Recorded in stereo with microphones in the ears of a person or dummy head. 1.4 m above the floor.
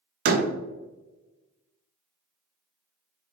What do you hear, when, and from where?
0.2 s a door slam: 55° right (ahead or behind), 0.6 m